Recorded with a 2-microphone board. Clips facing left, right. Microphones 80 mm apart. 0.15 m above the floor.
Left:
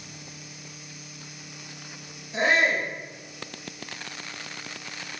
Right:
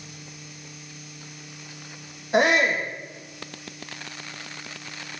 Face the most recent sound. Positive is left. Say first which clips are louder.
# right 3 dB
turn(degrees=-70)  # may be behind; listen again after turning